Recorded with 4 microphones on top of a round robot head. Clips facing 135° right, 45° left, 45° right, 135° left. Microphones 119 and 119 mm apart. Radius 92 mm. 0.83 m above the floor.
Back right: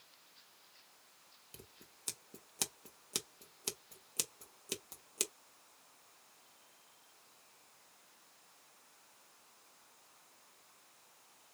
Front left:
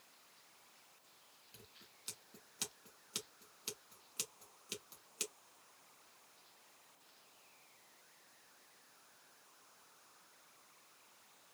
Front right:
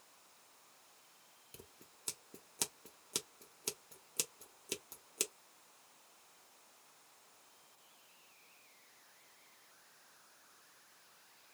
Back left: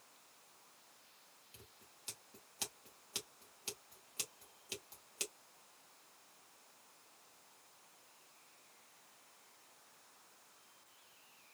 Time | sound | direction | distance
1.5 | scissors | 90° right | 1.0 m